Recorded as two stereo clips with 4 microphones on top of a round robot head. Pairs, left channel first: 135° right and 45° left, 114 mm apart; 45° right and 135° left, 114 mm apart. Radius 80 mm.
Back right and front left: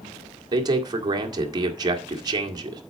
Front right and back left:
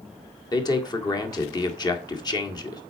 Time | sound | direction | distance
0.5 | a man speaking | straight ahead | 1.9 m